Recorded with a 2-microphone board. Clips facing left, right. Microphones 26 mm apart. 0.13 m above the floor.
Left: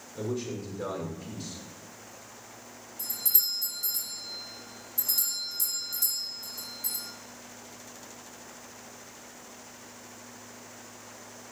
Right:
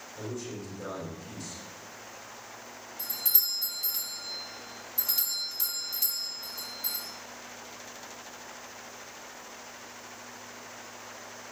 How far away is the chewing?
No chewing in this recording.